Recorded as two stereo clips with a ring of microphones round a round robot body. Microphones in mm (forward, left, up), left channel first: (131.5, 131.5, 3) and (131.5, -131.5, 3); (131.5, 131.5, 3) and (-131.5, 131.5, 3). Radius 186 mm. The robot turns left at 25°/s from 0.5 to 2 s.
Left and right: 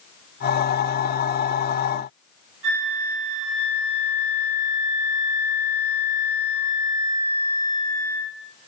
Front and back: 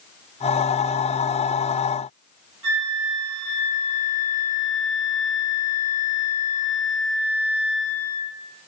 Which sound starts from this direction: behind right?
A flute, at 2.6 s.